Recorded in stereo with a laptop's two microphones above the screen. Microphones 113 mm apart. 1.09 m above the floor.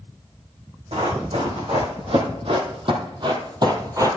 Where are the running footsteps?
65° right (ahead or behind), 2.5 m; by 4.2 s 25° right (ahead or behind), 1.4 m.